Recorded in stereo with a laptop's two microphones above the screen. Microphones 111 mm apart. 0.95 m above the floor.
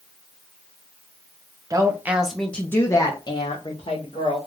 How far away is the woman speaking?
About 0.8 m.